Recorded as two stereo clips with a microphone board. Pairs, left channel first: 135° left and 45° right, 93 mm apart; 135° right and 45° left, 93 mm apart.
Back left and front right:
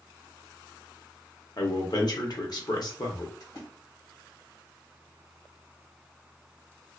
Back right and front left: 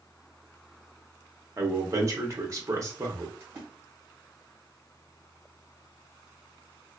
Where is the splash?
105° left, 1.7 m.